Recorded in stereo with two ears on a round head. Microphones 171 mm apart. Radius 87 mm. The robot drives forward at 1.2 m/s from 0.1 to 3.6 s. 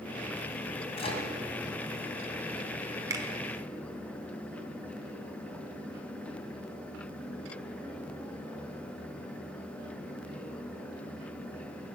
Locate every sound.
1.0 s a microwave: 35° left (ahead or behind), 2 m; by 1.3 s 30° left (ahead or behind), 2.5 m
3.1 s a finger snap: 20° right (ahead or behind), 1.2 m